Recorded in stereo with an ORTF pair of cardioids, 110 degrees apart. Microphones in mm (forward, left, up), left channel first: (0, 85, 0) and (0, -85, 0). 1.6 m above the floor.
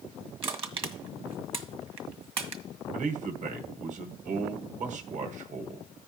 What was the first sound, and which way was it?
Crushing, 35° right.